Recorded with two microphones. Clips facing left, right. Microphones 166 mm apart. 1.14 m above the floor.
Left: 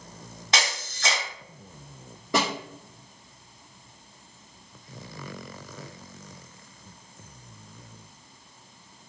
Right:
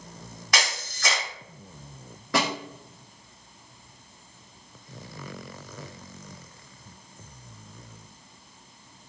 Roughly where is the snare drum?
Left.